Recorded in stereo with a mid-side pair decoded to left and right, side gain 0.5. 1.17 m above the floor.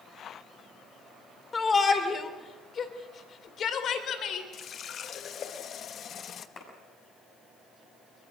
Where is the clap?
45° left, 7 m.